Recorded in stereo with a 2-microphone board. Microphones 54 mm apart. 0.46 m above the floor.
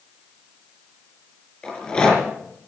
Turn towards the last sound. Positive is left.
turn(degrees=15)  # may be behind; listen again after turning